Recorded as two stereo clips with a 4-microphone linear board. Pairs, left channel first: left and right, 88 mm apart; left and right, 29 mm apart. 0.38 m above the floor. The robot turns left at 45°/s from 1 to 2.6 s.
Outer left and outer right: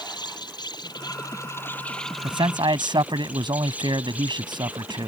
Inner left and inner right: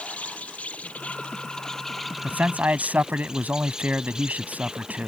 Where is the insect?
55° left; by 5.1 s 15° right.